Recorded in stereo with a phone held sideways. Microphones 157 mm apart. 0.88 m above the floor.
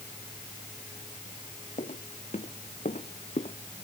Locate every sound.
1.8 s footsteps: 50° left (ahead or behind); by 3.6 s 45° left (ahead or behind)